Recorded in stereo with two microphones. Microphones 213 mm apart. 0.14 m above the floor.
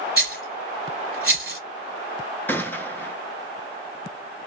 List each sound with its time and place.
0.2 s a rattle: 50° right (ahead or behind), 1.7 m
2.5 s a gunshot: 10° left (ahead or behind), 0.6 m